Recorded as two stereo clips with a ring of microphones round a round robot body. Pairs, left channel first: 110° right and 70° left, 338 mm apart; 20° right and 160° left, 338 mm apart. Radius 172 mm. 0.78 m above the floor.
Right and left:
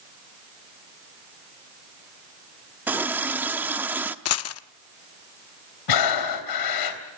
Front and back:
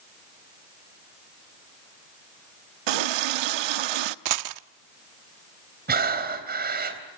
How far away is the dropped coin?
About 0.7 m.